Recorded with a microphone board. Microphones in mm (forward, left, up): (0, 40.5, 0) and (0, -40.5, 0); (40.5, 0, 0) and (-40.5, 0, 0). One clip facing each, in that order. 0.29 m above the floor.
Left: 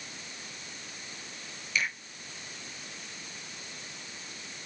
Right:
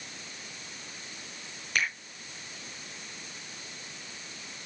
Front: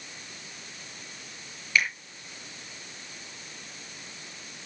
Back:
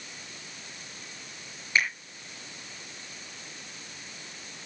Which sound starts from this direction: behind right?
A finger snap, at 1.8 s.